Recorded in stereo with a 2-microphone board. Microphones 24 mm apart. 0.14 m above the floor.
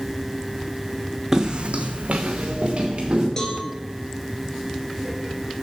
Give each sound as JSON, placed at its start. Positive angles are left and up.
{"t": 1.3, "sound": "footsteps", "side_deg": -25, "distance_m": 0.7}
{"t": 3.4, "sound": "a cowbell", "side_deg": 25, "distance_m": 1.3}